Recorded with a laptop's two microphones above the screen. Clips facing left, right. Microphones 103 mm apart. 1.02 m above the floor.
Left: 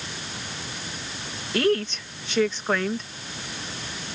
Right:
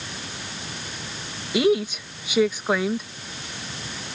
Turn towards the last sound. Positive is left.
turn(degrees=-10)  # may be behind; listen again after turning